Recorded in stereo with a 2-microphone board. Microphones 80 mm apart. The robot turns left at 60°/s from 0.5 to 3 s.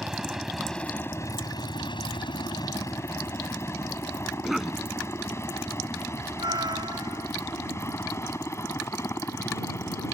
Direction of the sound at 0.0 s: 5° right (ahead or behind).